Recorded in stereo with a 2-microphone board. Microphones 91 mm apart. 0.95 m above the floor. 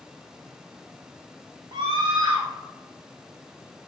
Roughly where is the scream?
Right.